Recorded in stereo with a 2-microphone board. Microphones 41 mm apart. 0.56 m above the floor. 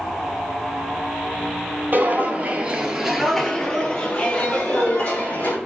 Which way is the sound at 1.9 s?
50° right (ahead or behind).